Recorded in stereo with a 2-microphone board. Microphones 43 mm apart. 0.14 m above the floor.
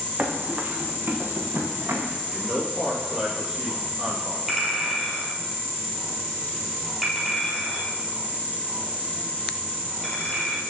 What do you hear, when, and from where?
0.2 s running footsteps: 45° right (ahead or behind), 2.5 m; by 2.2 s 65° right (ahead or behind), 2.5 m
2.3 s a man speaking: 15° right (ahead or behind), 4 m
4.5 s a clink: centre (ahead or behind), 2.5 m